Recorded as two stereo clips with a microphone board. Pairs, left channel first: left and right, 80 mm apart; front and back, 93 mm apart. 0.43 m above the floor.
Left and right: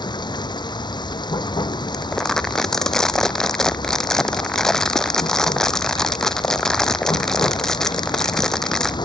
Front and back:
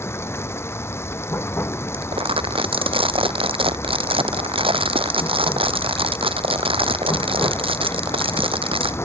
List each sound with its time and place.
0.0 s running water: 65° left
1.9 s crumpling: 175° left